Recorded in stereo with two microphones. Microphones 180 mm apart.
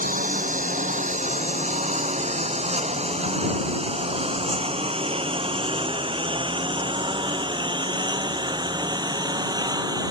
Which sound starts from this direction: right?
A lawn mower, at 0.0 s.